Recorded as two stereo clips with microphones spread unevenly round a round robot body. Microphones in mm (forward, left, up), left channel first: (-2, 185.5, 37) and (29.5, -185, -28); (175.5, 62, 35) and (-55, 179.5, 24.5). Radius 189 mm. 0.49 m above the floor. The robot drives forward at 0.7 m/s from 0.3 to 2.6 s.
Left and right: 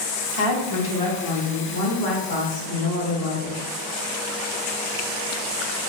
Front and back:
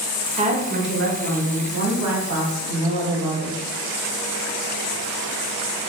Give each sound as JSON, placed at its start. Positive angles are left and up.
{"t": 0.4, "sound": "a woman speaking", "azimuth_deg": 95, "distance_m": 0.9}